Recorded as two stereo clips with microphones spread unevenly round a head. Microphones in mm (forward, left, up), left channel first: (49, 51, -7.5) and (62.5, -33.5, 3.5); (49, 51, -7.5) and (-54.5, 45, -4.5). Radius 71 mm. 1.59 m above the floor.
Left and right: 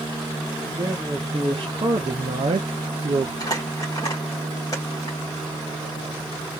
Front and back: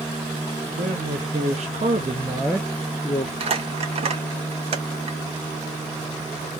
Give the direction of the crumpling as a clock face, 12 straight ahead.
6 o'clock.